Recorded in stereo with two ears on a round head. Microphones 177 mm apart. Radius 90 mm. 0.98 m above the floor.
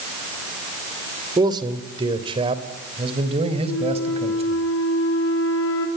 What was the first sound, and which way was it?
A man speaking, 20° right (ahead or behind).